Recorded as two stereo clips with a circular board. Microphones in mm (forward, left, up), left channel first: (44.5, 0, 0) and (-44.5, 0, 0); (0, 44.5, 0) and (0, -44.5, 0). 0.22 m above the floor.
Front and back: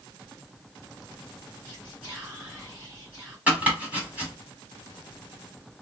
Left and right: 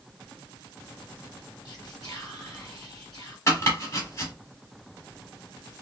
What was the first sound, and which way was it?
Whispering, 125° left.